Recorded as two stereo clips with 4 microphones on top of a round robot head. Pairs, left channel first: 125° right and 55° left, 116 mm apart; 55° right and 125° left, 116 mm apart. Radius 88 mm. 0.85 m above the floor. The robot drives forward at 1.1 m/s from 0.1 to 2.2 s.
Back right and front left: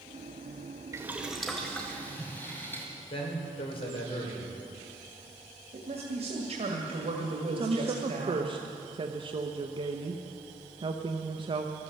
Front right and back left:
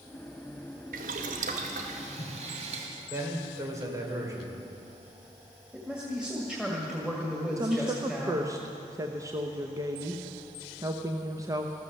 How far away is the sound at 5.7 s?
About 1.9 m.